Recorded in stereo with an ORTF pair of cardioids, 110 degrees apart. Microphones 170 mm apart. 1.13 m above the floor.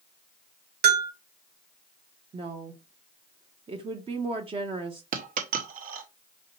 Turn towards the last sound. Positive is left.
turn(degrees=-55)